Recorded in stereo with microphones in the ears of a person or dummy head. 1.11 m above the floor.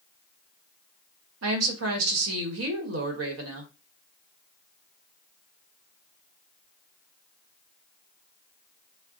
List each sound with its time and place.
1.4 s a woman speaking: 80° right, 1.2 m